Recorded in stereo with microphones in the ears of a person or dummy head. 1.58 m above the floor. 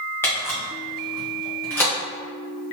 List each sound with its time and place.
0.2 s a camera shutter: 5° left (ahead or behind), 1.2 m